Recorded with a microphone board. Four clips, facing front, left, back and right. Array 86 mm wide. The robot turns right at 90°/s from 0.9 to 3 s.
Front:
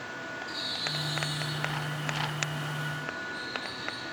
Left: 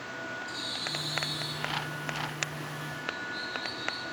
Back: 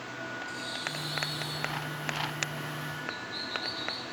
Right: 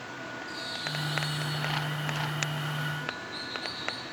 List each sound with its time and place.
0.5 s a bird: 40° left, 4 m; by 4.0 s 130° right, 4 m